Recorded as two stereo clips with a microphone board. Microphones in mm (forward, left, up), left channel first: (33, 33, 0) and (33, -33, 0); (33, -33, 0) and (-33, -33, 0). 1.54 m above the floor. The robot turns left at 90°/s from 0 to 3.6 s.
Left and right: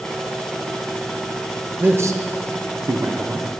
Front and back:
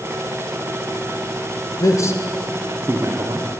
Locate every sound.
1.8 s a man speaking: 25° right, 0.6 m; by 3.5 s 175° right, 0.6 m